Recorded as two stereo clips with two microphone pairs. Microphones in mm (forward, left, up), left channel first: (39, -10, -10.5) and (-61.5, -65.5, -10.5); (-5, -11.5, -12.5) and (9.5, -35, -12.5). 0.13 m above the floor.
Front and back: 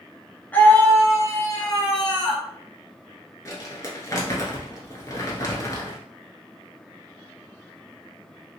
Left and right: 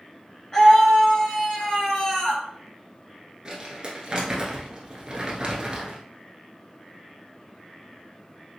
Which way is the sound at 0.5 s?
80° left.